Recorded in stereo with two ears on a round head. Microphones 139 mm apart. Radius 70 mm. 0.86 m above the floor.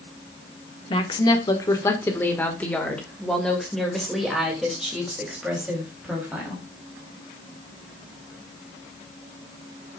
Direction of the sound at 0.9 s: 30° left (ahead or behind).